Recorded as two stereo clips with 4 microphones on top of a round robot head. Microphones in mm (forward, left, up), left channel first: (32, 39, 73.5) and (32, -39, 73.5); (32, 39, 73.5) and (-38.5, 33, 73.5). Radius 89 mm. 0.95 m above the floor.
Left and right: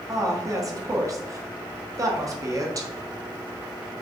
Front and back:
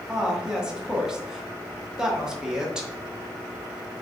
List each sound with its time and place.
0.1 s a woman speaking: 100° right, 1.1 m